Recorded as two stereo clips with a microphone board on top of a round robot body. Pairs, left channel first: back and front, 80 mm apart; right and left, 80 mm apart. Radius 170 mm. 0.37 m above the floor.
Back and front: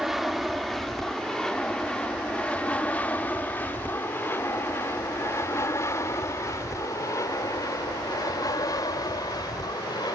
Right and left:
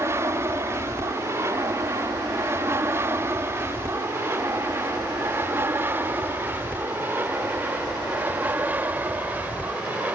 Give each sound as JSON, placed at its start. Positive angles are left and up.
{"t": 0.0, "sound": "an aircraft", "azimuth_deg": 85}